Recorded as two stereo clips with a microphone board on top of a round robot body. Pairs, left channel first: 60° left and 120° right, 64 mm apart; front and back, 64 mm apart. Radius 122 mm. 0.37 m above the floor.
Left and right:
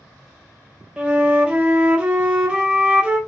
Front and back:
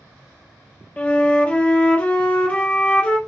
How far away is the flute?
About 0.9 m.